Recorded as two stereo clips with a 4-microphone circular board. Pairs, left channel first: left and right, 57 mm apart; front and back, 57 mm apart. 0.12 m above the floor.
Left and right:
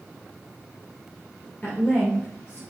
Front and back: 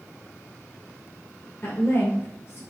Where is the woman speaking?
35° left, 2.0 m.